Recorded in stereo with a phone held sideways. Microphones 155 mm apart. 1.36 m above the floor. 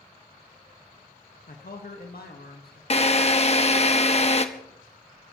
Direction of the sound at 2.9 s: 40° left (ahead or behind).